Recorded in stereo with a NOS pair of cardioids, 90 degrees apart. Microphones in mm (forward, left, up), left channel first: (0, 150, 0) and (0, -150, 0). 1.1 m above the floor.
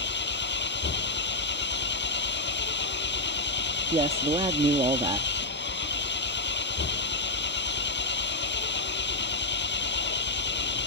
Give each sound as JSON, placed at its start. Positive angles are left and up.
{"t": 0.0, "sound": "an engine running", "azimuth_deg": 35}
{"t": 3.9, "sound": "a man speaking", "azimuth_deg": -20}